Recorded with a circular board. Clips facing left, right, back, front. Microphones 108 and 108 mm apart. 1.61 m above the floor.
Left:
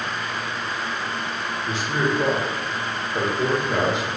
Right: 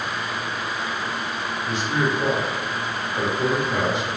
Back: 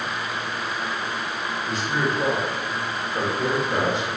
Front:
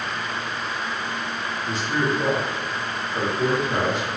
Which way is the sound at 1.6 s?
95° left.